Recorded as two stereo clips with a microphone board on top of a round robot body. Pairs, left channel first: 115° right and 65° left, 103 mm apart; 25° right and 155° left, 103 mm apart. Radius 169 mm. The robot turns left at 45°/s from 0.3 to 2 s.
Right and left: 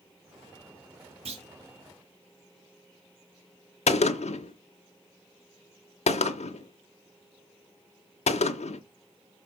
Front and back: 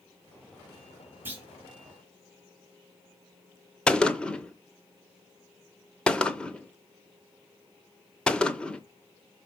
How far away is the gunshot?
About 0.7 m.